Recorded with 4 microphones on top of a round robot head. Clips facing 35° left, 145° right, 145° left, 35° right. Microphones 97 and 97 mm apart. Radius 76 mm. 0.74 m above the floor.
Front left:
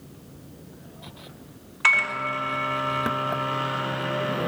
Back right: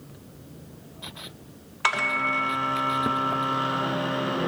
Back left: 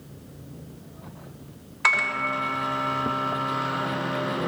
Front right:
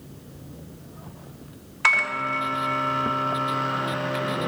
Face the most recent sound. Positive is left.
turn(degrees=-130)